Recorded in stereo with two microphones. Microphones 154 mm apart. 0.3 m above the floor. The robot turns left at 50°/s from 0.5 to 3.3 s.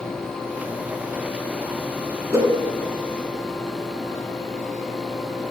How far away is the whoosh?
About 1.1 m.